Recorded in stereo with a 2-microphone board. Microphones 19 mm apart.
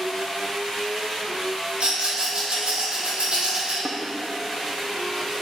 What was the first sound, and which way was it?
A rattle, 70° right (ahead or behind).